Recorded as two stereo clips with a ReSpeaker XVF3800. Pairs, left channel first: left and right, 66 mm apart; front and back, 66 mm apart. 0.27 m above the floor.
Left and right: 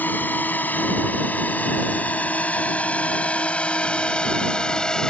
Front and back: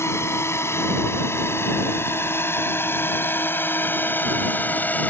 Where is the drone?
35° left; by 5.1 s 20° left.